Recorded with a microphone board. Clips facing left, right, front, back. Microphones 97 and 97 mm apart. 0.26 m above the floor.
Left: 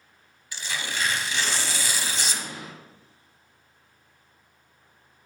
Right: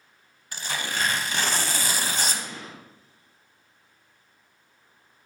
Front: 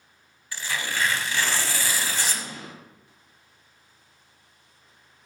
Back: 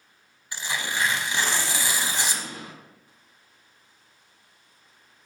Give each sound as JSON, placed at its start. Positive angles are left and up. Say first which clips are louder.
{"t": 0.5, "sound": "tearing paper", "louder": "right 2 dB, even", "azimuth_deg": -115, "distance_m": 0.6}
{"t": 2.3, "sound": "an explosion", "louder": "even, even", "azimuth_deg": 165, "distance_m": 2.5}